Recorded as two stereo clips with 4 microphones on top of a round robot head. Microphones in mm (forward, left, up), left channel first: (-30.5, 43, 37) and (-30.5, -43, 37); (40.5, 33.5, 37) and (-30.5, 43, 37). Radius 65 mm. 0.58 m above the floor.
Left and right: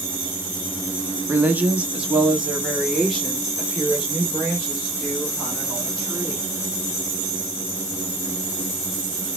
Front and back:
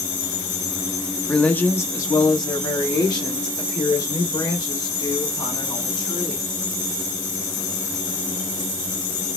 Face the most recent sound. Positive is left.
turn(degrees=10)